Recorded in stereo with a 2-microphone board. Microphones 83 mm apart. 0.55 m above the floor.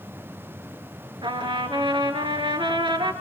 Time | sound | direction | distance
1.2 | a trumpet | 80° right | 5.5 m